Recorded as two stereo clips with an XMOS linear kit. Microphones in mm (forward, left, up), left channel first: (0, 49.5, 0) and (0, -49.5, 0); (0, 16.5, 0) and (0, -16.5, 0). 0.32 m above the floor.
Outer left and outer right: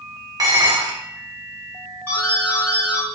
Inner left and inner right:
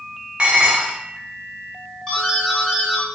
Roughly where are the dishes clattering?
Right.